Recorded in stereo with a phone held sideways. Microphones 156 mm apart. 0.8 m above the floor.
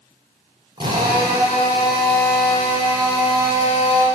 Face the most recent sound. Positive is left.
turn(degrees=-30)  # may be behind; listen again after turning